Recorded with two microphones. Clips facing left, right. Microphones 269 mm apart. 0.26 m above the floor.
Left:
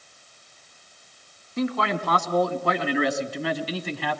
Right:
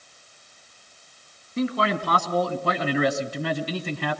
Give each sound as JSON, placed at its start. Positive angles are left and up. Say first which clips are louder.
{"t": 1.6, "sound": "a man speaking", "louder": "right 1 dB", "side_deg": -35, "distance_m": 2.0}